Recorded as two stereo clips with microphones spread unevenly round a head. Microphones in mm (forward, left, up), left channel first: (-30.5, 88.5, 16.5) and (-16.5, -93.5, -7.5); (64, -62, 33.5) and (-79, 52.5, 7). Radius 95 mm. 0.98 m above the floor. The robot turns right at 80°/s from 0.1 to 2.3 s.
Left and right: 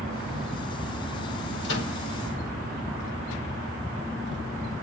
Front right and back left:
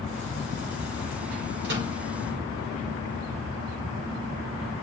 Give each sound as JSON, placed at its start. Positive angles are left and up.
{"t": 1.6, "sound": "a microwave", "azimuth_deg": 100, "distance_m": 4.0}